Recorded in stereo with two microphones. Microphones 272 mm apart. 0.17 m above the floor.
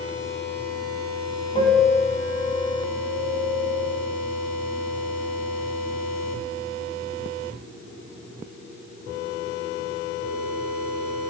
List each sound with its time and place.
1.6 s a piano: 20° left (ahead or behind), 0.9 m